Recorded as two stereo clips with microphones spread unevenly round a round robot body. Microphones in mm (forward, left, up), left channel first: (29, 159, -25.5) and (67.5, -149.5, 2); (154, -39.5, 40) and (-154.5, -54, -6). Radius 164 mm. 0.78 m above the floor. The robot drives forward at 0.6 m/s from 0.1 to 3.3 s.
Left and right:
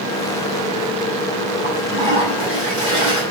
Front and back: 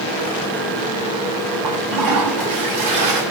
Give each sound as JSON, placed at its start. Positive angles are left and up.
{"t": 1.6, "sound": "a toilet flushing", "azimuth_deg": -155, "distance_m": 5.5}